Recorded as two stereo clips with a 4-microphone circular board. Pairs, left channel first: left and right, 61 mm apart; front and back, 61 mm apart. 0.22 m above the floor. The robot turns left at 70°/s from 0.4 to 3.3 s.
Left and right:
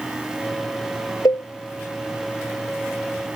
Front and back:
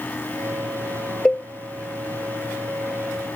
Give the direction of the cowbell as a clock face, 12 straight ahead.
9 o'clock.